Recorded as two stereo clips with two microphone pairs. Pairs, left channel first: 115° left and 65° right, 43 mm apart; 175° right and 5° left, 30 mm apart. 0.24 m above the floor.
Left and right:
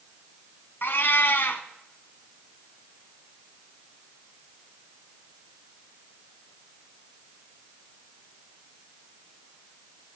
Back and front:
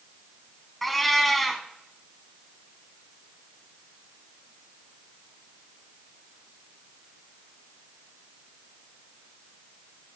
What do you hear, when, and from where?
0.8 s a cat meowing: 105° left, 1.2 m